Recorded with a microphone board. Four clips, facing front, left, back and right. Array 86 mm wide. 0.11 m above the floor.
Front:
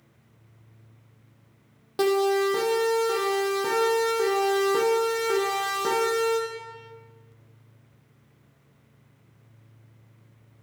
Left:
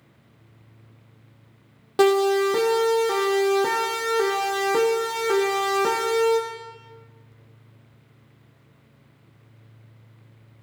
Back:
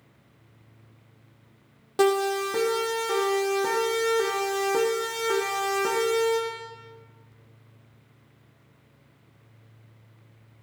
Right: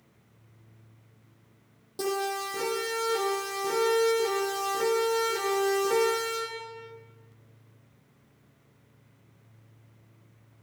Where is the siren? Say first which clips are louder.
Left 12 dB, front 1 dB; 100° left, 6.5 m; by 6.4 s 90° left, 10 m.